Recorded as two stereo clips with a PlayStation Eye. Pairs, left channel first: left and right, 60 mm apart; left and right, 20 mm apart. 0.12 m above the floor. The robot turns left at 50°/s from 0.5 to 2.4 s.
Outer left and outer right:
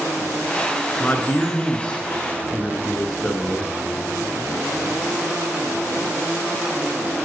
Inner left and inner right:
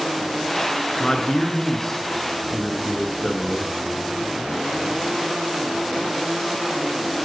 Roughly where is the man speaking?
Left.